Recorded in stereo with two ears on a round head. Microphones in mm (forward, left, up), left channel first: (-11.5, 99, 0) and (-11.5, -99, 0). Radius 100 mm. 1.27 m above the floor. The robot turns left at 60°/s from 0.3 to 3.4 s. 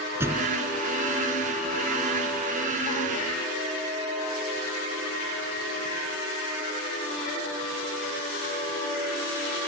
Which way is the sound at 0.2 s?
10° right (ahead or behind).